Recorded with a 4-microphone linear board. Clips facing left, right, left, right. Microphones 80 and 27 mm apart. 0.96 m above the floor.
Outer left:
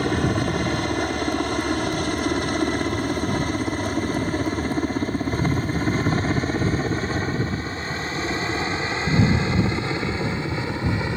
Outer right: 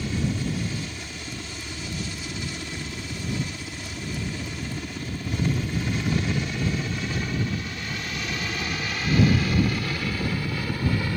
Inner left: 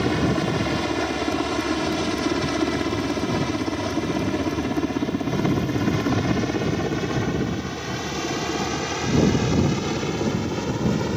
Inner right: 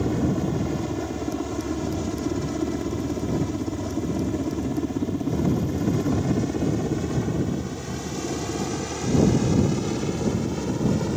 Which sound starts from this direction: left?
A helicopter, at 0.0 s.